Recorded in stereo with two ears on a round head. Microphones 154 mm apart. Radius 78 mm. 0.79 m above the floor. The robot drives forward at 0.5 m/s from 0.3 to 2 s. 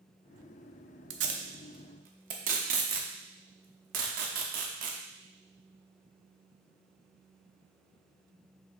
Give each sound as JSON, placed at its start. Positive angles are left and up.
{"t": 1.1, "sound": "tape being pulled", "side_deg": -85, "distance_m": 0.6}